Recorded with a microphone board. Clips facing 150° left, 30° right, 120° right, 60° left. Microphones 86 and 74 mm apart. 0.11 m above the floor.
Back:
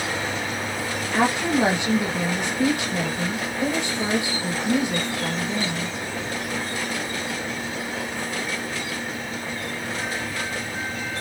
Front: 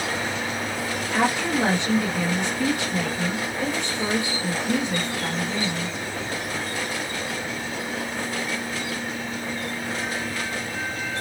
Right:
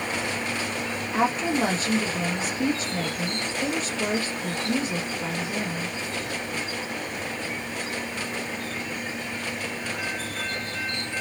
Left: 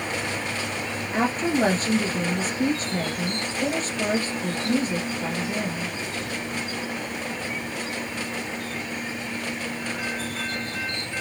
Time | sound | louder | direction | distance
1.1 | a woman speaking | back 2 dB, left 1 dB | 80° left | 1.9 m